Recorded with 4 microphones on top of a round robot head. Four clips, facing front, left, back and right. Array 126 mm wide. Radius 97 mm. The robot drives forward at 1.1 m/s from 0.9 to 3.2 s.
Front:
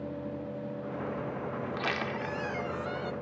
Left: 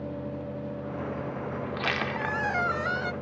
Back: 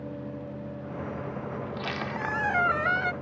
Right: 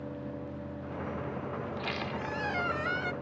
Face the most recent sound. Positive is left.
turn(degrees=165)